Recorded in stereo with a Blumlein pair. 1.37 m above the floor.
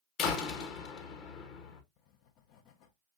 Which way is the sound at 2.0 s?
40° left.